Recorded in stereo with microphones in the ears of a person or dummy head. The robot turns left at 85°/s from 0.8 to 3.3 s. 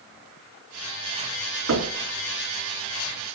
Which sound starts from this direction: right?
Knocking, at 1.7 s.